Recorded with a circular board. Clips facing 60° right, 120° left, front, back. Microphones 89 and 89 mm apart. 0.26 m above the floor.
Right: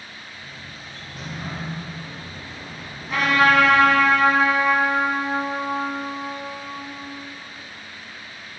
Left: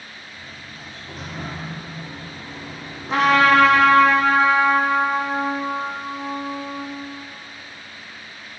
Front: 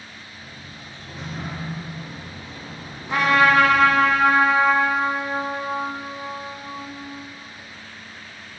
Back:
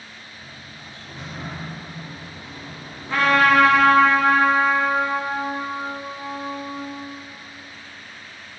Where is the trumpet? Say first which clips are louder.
Left 3 dB, even; 65° left, 2 m.